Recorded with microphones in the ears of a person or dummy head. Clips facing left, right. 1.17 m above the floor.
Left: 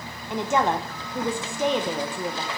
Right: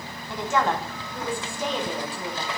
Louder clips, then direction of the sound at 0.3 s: Left 2 dB; 20° left (ahead or behind).